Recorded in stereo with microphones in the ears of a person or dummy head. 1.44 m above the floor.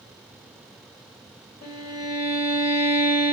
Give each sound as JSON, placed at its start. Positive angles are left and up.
{"t": 1.6, "sound": "a violin", "side_deg": 50, "distance_m": 1.4}